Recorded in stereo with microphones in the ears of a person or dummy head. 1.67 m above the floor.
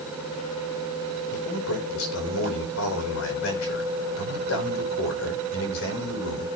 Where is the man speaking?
85° left, 5.5 m.